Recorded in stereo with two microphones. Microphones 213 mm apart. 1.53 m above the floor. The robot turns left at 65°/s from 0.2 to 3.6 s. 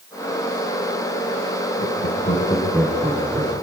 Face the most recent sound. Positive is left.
turn(degrees=-50)  # may be behind; listen again after turning